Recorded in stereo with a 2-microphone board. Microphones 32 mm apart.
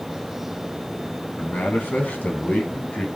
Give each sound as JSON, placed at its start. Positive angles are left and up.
{"t": 1.4, "sound": "a man speaking", "side_deg": 65, "distance_m": 3.0}